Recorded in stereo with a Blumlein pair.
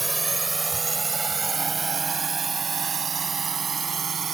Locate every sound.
0.0 s a drone: 10° right; by 4.3 s 20° right